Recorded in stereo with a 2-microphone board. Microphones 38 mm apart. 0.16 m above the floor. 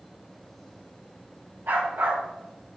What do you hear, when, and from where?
1.7 s a dog barking: 75° right (ahead or behind), 4.5 m